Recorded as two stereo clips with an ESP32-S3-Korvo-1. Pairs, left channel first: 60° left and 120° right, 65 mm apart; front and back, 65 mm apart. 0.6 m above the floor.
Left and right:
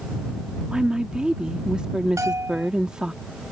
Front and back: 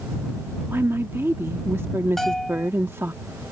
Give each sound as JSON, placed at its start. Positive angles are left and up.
{"t": 0.7, "sound": "a woman speaking", "azimuth_deg": 170}
{"t": 2.2, "sound": "a bell", "azimuth_deg": -85}